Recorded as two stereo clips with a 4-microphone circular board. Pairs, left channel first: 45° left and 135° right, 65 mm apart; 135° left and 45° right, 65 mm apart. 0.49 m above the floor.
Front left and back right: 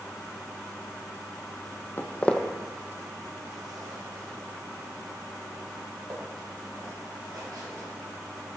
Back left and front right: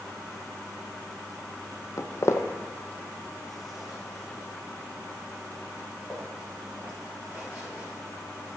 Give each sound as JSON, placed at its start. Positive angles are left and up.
{"t": 2.0, "sound": "footsteps", "azimuth_deg": 95, "distance_m": 0.9}